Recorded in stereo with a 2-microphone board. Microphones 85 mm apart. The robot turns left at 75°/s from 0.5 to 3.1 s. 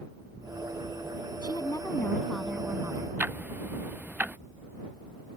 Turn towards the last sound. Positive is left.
turn(degrees=-25)  # may be behind; listen again after turning